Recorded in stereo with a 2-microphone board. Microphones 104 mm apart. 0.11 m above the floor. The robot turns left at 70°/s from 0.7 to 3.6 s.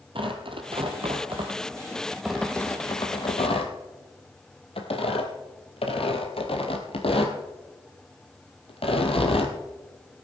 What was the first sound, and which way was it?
Tearing paper, 60° right (ahead or behind).